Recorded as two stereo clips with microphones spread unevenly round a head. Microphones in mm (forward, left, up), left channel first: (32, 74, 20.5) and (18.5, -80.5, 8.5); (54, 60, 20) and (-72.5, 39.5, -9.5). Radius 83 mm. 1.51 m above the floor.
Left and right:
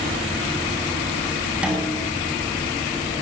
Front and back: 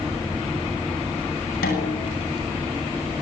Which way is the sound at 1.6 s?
10° right.